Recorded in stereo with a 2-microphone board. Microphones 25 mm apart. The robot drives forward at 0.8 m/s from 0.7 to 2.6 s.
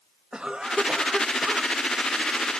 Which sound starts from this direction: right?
A cough, at 0.3 s.